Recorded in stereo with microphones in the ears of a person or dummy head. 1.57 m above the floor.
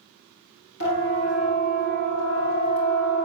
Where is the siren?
60° left (ahead or behind), 4.5 m; by 3.3 s 70° left (ahead or behind), 5.5 m.